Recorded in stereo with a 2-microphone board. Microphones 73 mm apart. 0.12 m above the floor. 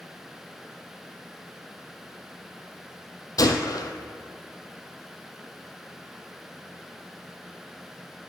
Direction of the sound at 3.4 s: 60° left (ahead or behind).